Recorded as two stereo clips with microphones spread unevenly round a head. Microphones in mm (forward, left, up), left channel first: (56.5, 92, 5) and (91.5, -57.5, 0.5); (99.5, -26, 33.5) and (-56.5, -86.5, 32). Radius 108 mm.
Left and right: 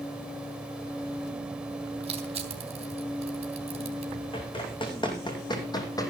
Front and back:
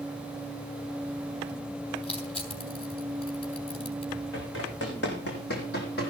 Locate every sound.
2.0 s crushing: 30° right, 3.5 m
4.3 s running footsteps: 50° left, 4.5 m; by 6.1 s 45° left, 2.5 m